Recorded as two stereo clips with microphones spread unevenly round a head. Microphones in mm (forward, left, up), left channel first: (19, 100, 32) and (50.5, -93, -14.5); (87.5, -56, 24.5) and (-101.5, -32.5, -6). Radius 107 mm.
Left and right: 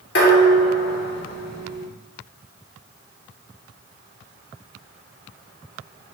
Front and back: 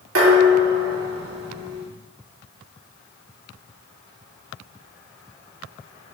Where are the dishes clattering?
140° left, 3 m.